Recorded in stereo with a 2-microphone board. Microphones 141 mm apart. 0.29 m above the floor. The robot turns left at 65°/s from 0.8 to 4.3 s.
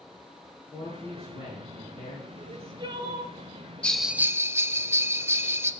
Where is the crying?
105° right, 1.4 m; by 3.4 s 165° right, 1.4 m.